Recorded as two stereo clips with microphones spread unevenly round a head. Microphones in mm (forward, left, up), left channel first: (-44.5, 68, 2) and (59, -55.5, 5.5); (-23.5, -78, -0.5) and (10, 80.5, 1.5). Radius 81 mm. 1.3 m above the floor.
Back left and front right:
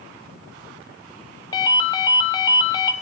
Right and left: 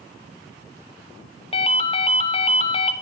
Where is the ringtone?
160° right, 1.0 m.